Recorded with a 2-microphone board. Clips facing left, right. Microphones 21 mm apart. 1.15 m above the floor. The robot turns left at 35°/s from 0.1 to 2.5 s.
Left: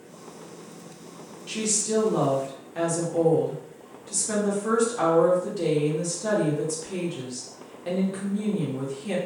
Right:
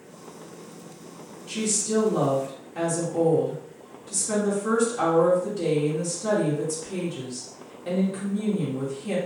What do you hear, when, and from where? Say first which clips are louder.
1.5 s a woman speaking: even; 60° left, 0.9 m; by 9.2 s 25° left, 0.9 m